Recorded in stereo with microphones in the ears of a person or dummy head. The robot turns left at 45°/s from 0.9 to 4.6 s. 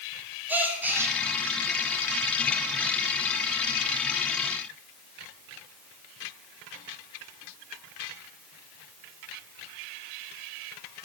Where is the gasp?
10° right (ahead or behind), 0.9 m; by 1.1 s 20° right (ahead or behind), 0.9 m.